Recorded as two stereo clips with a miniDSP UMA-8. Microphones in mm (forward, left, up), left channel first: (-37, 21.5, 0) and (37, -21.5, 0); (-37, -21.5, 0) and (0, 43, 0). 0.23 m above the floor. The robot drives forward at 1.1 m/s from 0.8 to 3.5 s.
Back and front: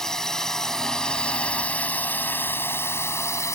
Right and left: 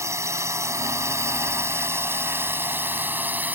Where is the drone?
70° left; by 3.5 s 115° left.